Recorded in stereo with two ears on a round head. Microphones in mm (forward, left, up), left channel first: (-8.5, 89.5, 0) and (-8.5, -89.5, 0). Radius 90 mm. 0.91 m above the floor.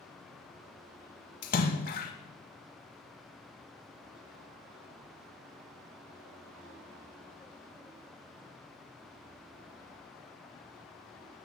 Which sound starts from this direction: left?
A splash, at 1.4 s.